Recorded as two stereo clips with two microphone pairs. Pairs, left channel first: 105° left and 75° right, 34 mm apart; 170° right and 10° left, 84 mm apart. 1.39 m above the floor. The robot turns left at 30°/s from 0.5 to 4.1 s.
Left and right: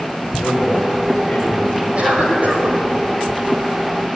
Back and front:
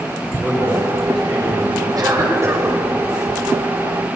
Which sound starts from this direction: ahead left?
A man speaking, at 0.4 s.